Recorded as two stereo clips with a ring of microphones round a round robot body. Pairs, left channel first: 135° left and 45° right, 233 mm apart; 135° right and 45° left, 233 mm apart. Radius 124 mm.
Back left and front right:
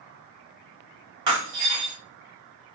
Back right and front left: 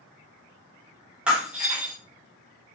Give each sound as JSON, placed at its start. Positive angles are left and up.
{"t": 1.3, "sound": "breaking glass", "azimuth_deg": -40, "distance_m": 1.3}